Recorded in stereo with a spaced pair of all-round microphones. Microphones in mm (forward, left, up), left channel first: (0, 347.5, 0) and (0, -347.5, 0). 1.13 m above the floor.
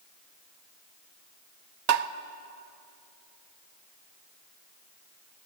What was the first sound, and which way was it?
Tapping, 65° right (ahead or behind).